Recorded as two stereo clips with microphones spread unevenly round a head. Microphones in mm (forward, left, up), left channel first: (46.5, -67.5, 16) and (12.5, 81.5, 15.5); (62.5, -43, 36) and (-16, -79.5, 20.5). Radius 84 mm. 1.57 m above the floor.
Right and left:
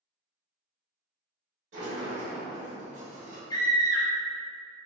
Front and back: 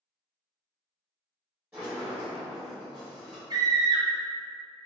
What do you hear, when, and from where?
1.7 s a sliding door: 130° left, 1.7 m
3.5 s a scream: 130° right, 0.5 m